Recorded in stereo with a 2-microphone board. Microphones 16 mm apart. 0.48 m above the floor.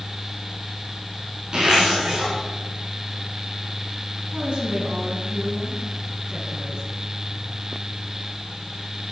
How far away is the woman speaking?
About 5.5 m.